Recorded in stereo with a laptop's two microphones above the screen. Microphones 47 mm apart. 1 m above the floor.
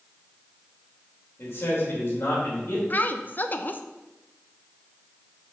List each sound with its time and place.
1.4 s a man speaking: 60° left (ahead or behind), 3.5 m
2.9 s a woman speaking: 40° left (ahead or behind), 0.5 m